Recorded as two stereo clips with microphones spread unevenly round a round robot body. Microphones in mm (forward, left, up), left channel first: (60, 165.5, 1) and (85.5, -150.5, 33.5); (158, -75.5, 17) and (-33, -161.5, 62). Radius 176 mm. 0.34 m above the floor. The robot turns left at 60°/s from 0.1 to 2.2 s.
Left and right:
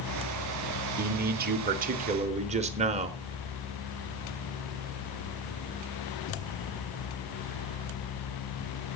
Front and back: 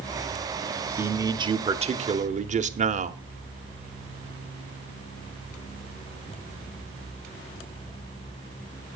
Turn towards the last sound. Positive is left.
turn(degrees=-135)